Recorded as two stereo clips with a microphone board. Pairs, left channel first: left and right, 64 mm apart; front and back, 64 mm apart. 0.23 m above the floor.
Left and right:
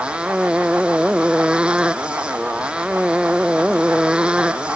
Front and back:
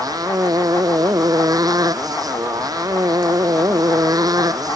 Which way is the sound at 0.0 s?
165° right.